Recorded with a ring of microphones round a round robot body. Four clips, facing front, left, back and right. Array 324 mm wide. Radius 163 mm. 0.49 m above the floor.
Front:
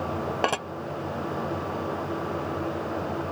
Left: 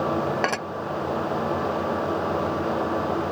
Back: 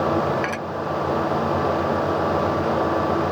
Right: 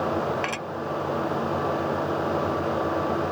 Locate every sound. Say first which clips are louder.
0.4 s dishes clattering: left 5 dB, even; 40° left